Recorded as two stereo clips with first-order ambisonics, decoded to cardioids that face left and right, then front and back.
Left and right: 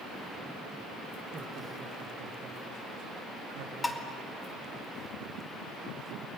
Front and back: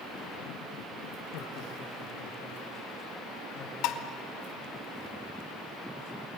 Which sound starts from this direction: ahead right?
Laughter, at 1.3 s.